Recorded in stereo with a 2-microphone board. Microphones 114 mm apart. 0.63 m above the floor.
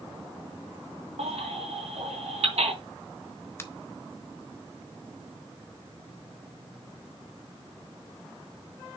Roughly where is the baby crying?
Right.